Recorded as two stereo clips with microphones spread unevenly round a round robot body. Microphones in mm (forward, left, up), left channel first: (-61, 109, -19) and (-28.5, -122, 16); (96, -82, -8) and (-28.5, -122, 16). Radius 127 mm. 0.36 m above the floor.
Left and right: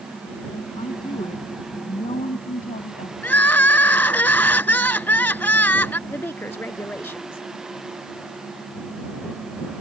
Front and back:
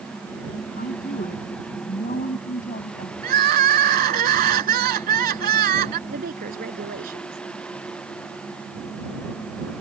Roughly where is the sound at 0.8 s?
Ahead left.